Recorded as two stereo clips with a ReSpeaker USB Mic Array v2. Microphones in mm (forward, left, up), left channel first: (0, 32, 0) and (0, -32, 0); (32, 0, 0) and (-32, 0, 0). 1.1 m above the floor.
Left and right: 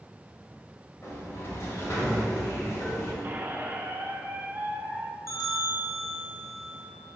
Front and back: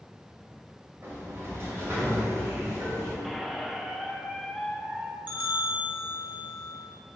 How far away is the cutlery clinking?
No cutlery clinking in this recording.